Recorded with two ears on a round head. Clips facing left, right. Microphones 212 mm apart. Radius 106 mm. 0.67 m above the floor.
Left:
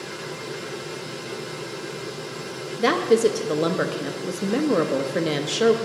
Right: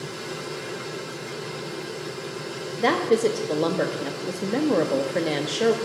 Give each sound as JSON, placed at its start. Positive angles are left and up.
{"t": 2.8, "sound": "a woman speaking", "side_deg": 10, "distance_m": 0.6}